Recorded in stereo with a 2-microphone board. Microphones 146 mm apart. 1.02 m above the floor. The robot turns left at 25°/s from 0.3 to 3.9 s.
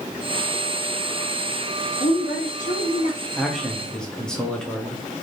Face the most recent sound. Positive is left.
turn(degrees=5)  # may be behind; listen again after turning